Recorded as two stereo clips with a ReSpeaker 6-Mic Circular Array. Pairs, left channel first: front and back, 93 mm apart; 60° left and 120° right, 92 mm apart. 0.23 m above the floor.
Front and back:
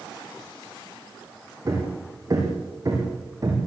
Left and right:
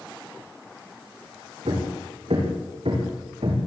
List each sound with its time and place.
1.6 s hammering: 130° right, 6 m